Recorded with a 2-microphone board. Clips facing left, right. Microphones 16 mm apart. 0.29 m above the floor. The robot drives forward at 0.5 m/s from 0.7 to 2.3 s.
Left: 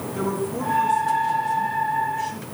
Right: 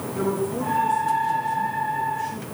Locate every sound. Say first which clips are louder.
0.1 s a woman speaking: right 1 dB; 20° left (ahead or behind), 2.5 m; by 2.5 s 30° left (ahead or behind), 2 m